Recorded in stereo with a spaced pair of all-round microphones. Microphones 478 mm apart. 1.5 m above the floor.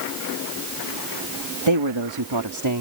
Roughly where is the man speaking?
Right.